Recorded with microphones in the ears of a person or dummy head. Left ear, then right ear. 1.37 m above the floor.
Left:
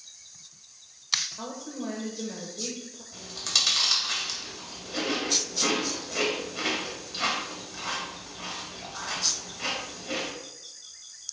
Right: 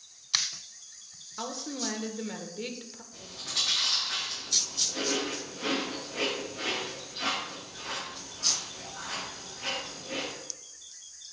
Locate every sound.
1.4 s a woman speaking: 55° right (ahead or behind), 1.3 m
3.1 s chewing: 85° left, 2.5 m